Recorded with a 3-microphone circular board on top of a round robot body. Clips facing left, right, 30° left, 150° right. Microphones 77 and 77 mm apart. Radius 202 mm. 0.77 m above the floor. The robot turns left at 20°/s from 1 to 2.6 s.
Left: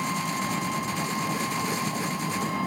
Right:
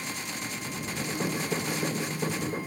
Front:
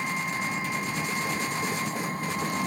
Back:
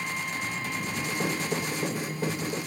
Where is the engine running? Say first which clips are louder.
Left 9 dB, front 3 dB; 105° left; by 2.7 s 75° left.